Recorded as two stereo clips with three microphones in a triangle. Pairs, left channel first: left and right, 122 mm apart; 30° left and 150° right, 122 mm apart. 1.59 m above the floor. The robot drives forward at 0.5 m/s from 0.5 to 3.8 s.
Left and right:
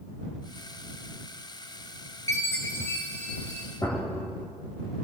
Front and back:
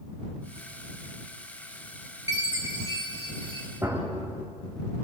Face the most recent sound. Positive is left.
turn(degrees=145)